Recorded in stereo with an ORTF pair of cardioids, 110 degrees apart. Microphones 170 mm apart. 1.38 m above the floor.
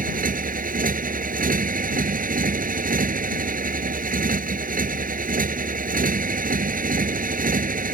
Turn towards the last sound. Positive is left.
turn(degrees=-55)